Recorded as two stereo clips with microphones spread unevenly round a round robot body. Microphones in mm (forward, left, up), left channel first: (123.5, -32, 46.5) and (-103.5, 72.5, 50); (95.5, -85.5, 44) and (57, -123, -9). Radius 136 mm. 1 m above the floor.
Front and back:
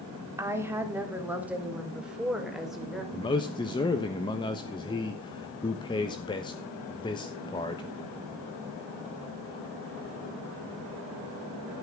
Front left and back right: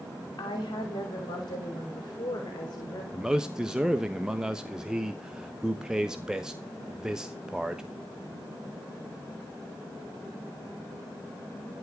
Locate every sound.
0.4 s a woman speaking: 75° left, 3 m; by 3.0 s 65° left, 4.5 m
3.1 s a man speaking: 95° right, 1.2 m